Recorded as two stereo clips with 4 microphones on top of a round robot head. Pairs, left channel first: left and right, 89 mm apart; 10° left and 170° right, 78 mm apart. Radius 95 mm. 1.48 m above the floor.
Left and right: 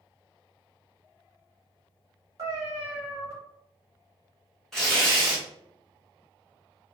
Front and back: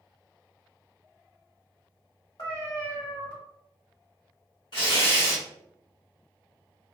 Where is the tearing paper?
5° left, 1.0 m.